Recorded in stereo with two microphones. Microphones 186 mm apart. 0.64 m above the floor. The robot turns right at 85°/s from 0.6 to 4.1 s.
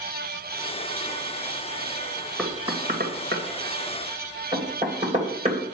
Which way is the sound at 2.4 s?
5° left (ahead or behind).